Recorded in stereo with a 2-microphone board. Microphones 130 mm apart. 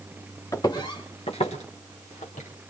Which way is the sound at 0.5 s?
25° left (ahead or behind).